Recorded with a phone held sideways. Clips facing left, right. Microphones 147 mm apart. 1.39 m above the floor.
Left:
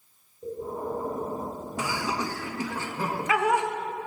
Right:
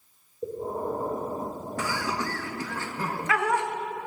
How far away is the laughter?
About 1.6 m.